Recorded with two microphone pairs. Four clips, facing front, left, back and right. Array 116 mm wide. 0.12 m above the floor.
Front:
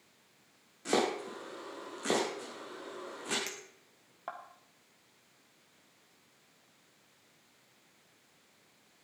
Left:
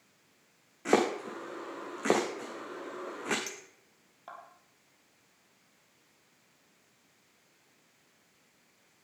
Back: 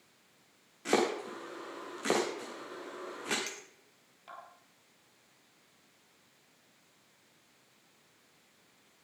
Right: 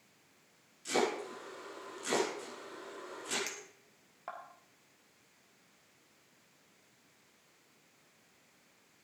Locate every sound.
0.8 s chopping: 100° left, 3 m
3.5 s a clink: 15° right, 1.9 m